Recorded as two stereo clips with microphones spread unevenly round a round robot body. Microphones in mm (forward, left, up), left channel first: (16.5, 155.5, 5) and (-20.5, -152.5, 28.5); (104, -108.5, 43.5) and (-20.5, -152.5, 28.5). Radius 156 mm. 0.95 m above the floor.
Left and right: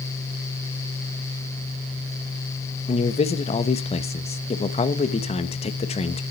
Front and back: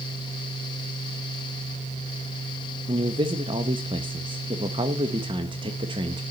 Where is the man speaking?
150° left, 1.1 m.